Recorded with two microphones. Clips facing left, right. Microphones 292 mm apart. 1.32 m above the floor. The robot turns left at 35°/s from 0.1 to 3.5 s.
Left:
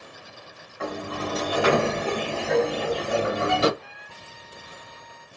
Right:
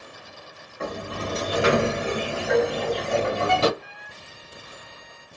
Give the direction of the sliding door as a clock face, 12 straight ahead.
4 o'clock.